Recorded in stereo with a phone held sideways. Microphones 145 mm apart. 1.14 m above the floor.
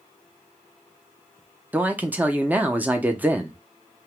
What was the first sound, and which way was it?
A man speaking, 10° right (ahead or behind).